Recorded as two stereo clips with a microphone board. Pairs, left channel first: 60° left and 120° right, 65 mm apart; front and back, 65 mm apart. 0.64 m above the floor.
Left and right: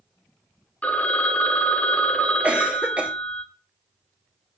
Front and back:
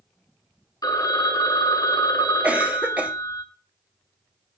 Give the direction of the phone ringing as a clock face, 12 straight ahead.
12 o'clock.